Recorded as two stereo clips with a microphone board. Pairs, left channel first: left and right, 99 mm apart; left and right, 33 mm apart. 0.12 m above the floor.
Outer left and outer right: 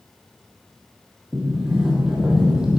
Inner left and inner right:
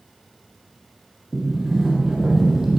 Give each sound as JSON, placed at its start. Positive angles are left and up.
{"t": 1.3, "sound": "a sliding door", "side_deg": -5, "distance_m": 3.0}